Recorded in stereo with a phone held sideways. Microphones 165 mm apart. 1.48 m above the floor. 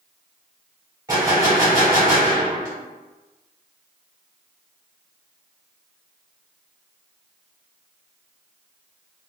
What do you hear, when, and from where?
1.1 s a gunshot: 20° right (ahead or behind), 1.4 m